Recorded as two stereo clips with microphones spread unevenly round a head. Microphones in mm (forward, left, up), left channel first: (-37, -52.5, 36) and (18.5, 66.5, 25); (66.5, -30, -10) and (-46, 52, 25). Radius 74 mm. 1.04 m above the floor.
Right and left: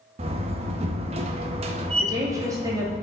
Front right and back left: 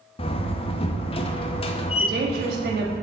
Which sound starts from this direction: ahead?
A door slam, at 0.2 s.